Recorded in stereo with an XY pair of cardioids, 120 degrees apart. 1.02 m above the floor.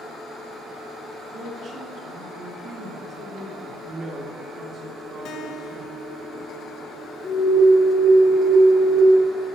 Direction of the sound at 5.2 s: 70° left.